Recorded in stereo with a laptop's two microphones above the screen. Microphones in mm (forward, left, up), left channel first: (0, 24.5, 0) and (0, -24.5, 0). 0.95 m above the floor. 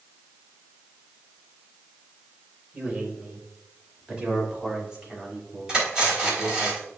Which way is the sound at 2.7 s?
30° right (ahead or behind).